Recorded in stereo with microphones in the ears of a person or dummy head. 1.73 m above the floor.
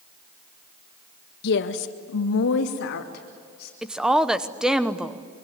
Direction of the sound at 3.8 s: 5° right (ahead or behind).